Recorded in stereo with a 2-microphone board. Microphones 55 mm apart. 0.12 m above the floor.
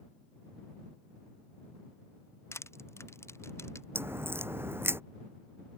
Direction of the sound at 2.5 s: 50° left (ahead or behind).